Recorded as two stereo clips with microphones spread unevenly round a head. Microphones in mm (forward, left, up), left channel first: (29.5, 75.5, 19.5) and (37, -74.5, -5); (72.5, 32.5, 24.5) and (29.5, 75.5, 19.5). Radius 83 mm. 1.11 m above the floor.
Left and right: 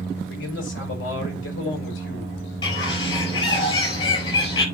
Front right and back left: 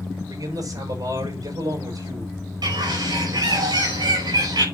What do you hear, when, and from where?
0.3 s a man speaking: 120° left, 5 m
2.6 s a bird: 155° left, 5 m